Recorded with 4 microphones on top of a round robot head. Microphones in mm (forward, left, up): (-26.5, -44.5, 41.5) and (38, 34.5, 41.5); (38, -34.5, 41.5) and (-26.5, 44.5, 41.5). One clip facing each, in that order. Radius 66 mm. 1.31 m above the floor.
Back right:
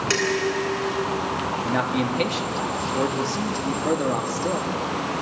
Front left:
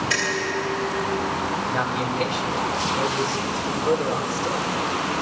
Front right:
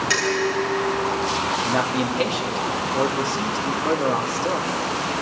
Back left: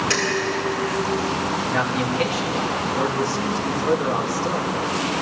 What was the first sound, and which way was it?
Dishes clattering, 135° right.